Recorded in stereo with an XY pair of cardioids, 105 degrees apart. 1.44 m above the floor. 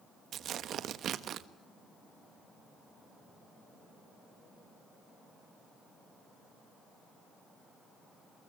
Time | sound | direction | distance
0.3 | tearing paper | 65° right | 1.4 m